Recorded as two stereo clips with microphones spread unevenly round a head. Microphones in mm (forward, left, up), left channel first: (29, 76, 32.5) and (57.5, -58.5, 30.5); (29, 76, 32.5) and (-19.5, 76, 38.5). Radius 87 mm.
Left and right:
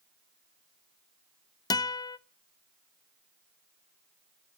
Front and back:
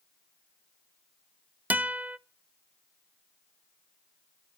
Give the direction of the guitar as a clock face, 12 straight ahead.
7 o'clock.